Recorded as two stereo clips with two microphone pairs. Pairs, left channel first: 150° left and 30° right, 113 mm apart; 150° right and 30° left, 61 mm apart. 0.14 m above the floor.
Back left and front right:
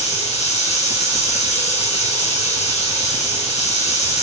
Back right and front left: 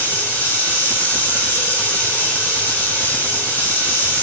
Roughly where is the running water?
Behind left.